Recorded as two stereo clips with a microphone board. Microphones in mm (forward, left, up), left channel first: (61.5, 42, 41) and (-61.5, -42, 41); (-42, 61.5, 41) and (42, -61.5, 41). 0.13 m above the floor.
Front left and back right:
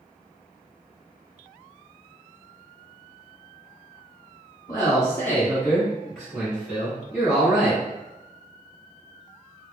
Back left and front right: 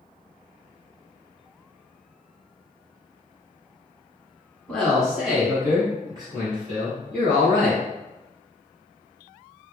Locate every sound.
4.7 s a man speaking: 50° left, 1.1 m; by 7.8 s 75° right, 1.7 m